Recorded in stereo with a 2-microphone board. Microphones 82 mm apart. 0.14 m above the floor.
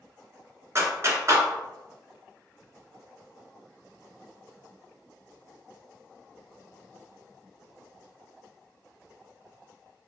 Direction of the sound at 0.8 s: 40° right (ahead or behind).